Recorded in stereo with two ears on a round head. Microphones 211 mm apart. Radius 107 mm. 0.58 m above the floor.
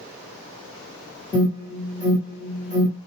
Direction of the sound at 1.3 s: 30° left (ahead or behind).